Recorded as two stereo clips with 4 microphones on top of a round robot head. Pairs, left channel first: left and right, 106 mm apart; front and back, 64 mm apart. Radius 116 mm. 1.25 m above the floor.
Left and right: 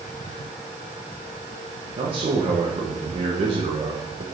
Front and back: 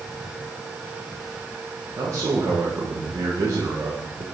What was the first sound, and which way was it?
A man speaking, 130° right.